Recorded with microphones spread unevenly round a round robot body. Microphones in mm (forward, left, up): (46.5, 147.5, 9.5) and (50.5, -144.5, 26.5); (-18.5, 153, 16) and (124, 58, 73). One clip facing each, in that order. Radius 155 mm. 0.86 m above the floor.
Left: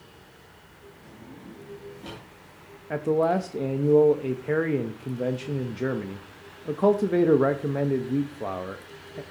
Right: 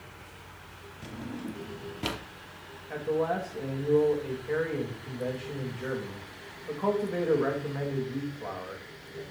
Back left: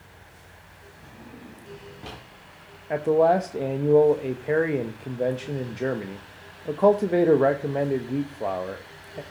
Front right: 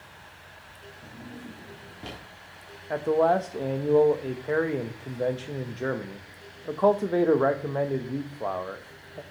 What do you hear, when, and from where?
1.0 s a drawer: 110° right, 1.0 m
2.9 s a man speaking: 85° left, 0.8 m